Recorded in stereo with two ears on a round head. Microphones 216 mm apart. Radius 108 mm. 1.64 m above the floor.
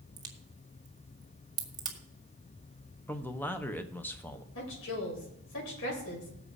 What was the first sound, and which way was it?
A crack, 20° right (ahead or behind).